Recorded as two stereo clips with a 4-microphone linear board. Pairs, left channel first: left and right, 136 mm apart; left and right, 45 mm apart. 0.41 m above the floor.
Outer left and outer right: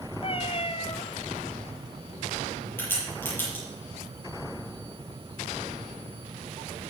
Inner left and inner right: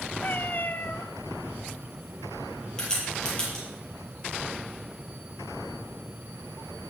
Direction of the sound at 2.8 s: 15° left (ahead or behind).